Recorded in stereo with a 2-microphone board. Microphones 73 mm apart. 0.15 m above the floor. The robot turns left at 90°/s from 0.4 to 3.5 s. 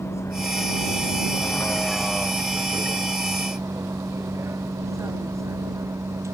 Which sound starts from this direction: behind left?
A vehicle, at 0.0 s.